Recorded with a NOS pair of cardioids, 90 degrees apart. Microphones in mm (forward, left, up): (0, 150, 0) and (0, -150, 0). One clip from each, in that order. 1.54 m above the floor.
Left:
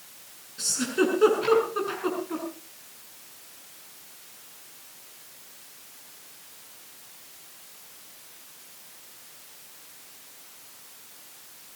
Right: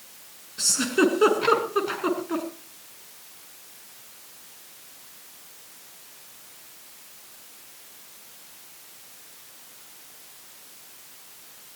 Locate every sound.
0.6 s a giggle: 30° right, 6 m